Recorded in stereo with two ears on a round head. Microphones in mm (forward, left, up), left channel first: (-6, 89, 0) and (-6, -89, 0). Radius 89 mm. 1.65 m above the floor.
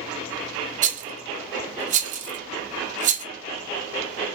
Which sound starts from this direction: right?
A rattle, at 0.8 s.